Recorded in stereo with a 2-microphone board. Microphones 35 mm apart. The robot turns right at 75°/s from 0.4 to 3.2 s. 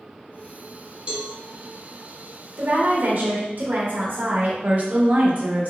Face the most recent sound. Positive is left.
turn(degrees=-50)  # may be behind; listen again after turning